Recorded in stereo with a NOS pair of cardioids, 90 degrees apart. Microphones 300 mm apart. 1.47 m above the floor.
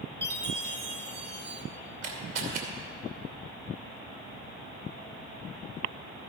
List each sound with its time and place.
0.2 s a chime: 35° right, 1.3 m
2.0 s a camera shutter: 55° right, 2.5 m